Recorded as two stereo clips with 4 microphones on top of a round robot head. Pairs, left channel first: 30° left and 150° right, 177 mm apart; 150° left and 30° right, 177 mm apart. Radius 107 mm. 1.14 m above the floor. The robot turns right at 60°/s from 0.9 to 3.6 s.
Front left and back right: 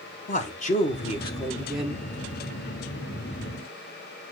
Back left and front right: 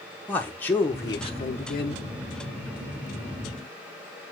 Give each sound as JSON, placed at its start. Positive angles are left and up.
{"t": 0.3, "sound": "a man speaking", "azimuth_deg": 70, "distance_m": 1.1}